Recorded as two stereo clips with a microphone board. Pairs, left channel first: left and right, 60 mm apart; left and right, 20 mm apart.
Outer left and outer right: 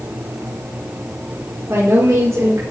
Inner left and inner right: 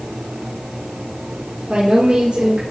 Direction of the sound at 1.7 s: 55° right (ahead or behind).